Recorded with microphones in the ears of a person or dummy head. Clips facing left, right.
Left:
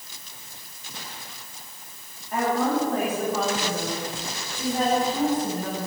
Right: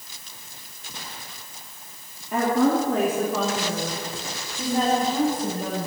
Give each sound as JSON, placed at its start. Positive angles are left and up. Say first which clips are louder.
{"t": 2.3, "sound": "a woman speaking", "louder": "right 3 dB", "side_deg": -65, "distance_m": 2.5}